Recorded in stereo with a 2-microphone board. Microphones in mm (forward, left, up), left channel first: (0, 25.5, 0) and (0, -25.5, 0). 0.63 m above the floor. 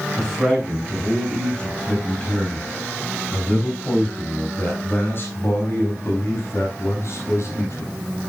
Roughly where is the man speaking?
Centre.